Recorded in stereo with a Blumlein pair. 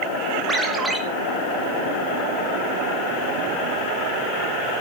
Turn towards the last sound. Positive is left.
turn(degrees=-5)